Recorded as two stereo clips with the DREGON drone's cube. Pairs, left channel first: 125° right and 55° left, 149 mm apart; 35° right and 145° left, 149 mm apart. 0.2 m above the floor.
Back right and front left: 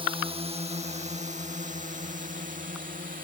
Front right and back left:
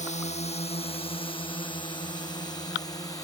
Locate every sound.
0.0 s a drone: straight ahead; by 3.2 s 30° left